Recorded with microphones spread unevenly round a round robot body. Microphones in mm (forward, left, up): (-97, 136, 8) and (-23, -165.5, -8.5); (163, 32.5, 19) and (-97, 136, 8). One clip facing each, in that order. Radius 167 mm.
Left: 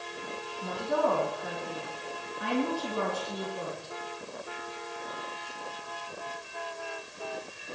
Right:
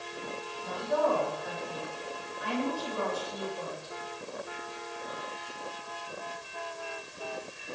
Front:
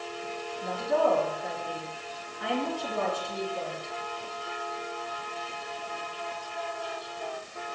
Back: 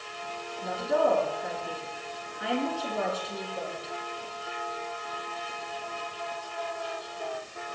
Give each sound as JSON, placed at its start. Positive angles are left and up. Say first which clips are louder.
{"t": 0.6, "sound": "a woman speaking", "louder": "even, even", "azimuth_deg": 70, "distance_m": 4.0}